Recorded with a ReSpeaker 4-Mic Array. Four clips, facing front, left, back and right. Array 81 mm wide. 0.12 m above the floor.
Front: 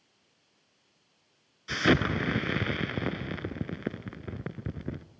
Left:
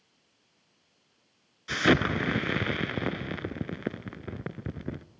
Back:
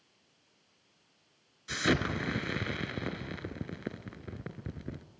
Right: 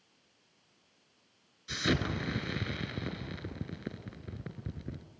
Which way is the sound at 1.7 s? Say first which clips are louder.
Left 8 dB, front 5 dB; 65° left.